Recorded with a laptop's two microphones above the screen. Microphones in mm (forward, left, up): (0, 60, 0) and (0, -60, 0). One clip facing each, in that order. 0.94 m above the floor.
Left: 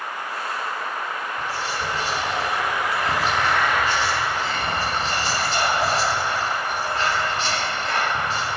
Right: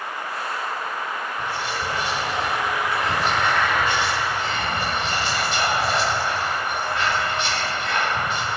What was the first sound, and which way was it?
Whispering, 40° left (ahead or behind).